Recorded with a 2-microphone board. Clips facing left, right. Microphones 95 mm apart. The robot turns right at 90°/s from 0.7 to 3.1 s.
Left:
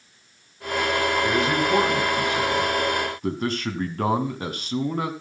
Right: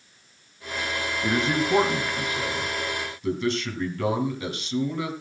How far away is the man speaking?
About 2 m.